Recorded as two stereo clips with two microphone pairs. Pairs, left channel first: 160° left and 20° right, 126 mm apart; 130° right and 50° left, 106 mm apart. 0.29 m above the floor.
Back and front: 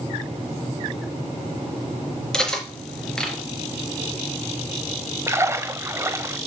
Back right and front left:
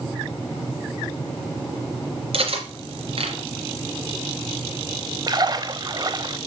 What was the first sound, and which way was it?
Cutlery clinking, 75° left.